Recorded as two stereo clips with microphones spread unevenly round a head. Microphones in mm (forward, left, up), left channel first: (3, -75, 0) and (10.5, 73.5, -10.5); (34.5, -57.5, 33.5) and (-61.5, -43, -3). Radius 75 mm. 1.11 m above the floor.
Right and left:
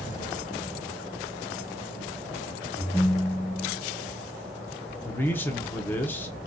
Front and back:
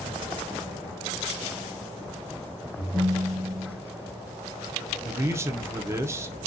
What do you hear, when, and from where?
2.8 s a ringtone: 5° left, 0.7 m
5.0 s a man speaking: 170° right, 0.6 m